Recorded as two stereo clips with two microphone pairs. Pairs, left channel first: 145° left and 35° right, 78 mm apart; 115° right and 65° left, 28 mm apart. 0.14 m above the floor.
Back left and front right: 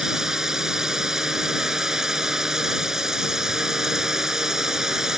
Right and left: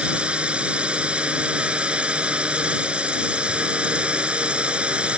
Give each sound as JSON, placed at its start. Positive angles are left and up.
{"t": 0.0, "sound": "a drone", "azimuth_deg": 45}